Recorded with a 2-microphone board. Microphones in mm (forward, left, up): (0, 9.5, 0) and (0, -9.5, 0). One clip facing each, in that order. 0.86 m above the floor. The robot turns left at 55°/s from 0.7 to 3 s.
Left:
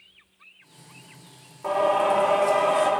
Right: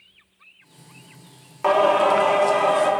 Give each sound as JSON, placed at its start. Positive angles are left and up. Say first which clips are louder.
{"t": 1.6, "sound": "singing", "louder": "right 5 dB", "azimuth_deg": -105, "distance_m": 0.6}